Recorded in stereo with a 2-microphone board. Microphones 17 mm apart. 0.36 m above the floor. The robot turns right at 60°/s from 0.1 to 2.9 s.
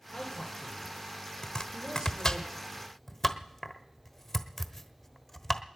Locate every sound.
0.1 s a man speaking: 145° left, 5.5 m; by 2.4 s 75° right, 5.5 m
1.4 s chopping: 35° left (ahead or behind), 1.1 m; by 5.6 s 20° left (ahead or behind), 1.1 m